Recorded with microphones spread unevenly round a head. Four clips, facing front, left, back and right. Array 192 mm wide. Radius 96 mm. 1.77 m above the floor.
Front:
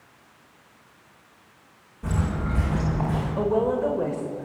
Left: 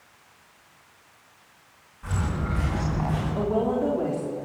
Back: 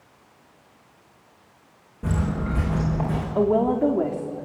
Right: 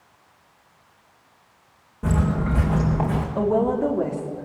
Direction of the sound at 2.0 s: 125° right.